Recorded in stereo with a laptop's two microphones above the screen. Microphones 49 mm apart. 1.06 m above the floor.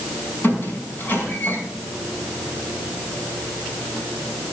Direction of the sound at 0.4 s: 45° left (ahead or behind).